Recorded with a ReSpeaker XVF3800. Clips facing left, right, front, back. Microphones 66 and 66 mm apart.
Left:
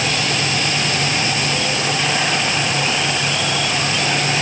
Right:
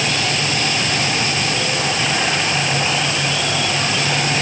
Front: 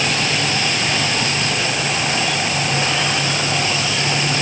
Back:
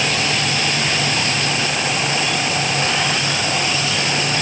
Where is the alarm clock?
No alarm clock in this recording.